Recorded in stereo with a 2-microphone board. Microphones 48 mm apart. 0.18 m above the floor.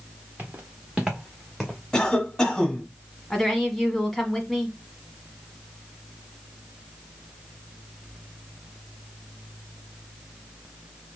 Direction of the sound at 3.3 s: 5° left (ahead or behind).